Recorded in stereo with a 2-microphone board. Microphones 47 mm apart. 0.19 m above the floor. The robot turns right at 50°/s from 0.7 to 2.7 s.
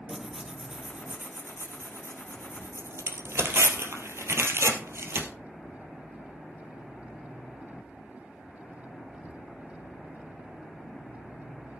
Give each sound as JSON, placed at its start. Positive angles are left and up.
{"t": 0.1, "sound": "tearing paper", "side_deg": -15, "distance_m": 2.0}